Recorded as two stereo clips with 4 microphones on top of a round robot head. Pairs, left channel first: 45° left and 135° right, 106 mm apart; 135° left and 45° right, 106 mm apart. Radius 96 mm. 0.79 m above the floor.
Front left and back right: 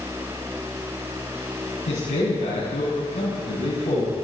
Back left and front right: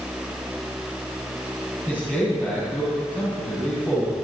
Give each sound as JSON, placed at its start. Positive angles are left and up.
{"t": 1.9, "sound": "a man speaking", "azimuth_deg": 35, "distance_m": 5.0}